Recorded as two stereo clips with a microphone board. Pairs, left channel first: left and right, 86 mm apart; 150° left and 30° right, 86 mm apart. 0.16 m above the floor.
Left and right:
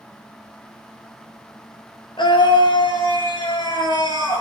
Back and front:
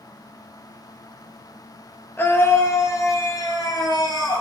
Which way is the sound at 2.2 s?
90° left.